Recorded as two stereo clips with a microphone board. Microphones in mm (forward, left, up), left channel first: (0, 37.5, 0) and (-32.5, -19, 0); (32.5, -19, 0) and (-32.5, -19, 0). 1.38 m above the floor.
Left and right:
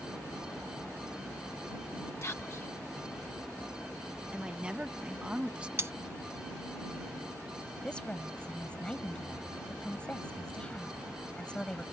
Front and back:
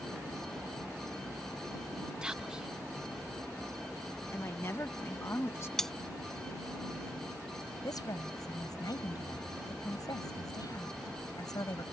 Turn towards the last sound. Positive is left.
turn(degrees=-15)